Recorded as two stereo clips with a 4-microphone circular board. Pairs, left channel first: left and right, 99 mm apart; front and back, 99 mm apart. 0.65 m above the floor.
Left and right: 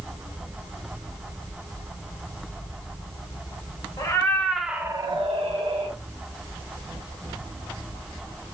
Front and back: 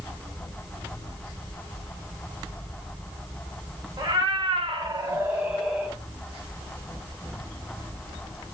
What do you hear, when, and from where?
4.0 s a cat meowing: 140° left, 0.8 m; by 6.0 s 95° right, 1.1 m